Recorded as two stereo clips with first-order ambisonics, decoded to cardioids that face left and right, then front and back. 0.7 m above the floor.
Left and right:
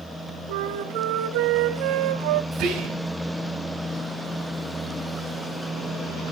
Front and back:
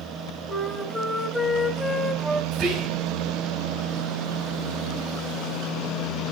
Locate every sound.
0.5 s a flute: 90° right, 1.5 m
2.5 s whispering: 125° right, 5 m